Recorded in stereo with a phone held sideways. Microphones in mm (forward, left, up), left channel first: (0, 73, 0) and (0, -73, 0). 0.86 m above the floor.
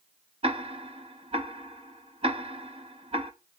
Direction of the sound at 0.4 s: 45° right (ahead or behind).